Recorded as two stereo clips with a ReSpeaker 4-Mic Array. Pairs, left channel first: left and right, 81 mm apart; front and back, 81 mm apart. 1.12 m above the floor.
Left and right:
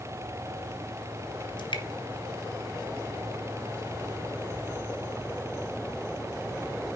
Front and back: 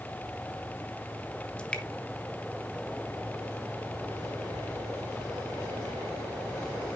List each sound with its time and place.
1.6 s dripping: 75° left, 1.6 m